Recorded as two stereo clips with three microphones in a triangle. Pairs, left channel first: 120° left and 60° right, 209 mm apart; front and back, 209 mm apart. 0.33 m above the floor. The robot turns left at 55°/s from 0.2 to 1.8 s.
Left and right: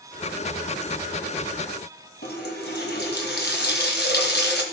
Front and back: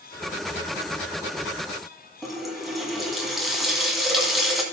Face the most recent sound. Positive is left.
turn(degrees=90)